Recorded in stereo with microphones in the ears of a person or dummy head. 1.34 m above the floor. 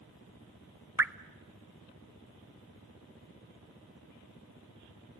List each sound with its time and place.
1.0 s dripping: 10° right (ahead or behind), 0.6 m